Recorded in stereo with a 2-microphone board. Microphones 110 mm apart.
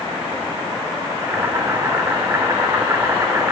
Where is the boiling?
25° right (ahead or behind), 1.4 m.